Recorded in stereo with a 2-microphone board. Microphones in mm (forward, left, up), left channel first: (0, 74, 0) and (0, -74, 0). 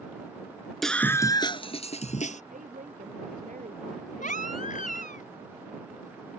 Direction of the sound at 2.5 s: 65° right (ahead or behind).